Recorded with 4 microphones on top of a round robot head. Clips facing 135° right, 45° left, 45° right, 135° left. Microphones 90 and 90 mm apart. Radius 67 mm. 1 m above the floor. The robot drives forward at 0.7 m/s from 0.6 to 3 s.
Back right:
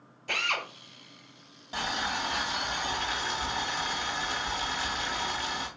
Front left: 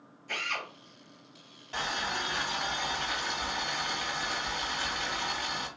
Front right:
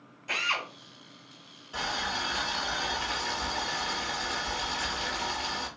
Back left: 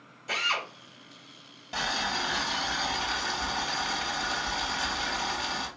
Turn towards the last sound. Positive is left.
turn(degrees=160)